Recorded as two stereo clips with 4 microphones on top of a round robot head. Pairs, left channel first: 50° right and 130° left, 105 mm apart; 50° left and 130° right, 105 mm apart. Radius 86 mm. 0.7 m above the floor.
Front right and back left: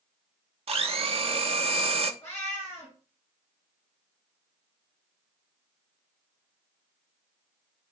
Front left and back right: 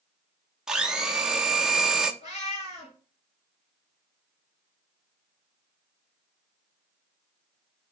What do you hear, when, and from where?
0.7 s a blender: 145° left, 1.1 m
2.2 s a cat meowing: 15° left, 4 m